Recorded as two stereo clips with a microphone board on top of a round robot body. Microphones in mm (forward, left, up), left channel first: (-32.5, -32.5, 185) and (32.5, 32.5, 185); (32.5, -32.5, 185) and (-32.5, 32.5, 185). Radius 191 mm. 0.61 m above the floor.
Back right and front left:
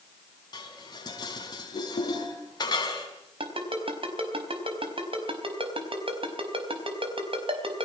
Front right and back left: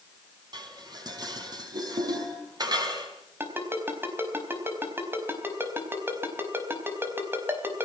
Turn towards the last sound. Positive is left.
turn(degrees=70)